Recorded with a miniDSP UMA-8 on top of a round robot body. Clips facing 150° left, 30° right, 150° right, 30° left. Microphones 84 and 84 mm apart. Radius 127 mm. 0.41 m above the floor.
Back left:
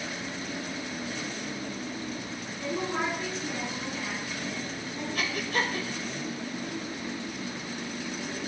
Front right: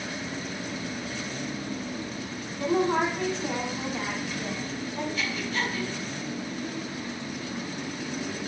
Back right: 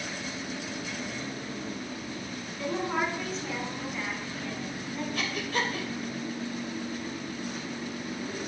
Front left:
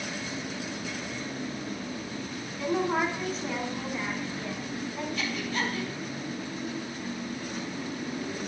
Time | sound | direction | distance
2.6 | a woman speaking | 60° right | 6.5 m
5.2 | breathing | 175° right | 2.5 m